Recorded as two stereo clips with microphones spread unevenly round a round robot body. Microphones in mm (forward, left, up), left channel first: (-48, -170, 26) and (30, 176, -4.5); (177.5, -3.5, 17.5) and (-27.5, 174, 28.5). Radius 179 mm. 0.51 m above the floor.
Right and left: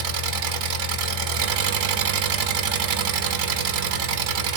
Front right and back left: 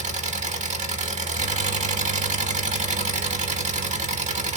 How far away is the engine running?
About 1.0 m.